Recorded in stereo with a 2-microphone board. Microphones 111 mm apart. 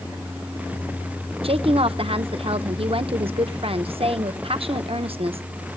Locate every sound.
1.4 s a woman speaking: 60° right (ahead or behind), 0.8 m